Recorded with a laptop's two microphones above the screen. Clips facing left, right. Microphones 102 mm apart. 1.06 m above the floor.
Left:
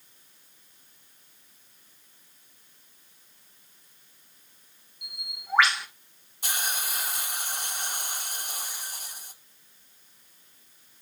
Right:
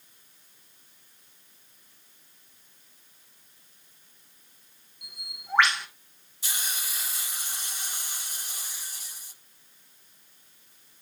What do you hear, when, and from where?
5.0 s a bird: centre (ahead or behind), 2.5 m
6.4 s a hiss: 55° left (ahead or behind), 1.2 m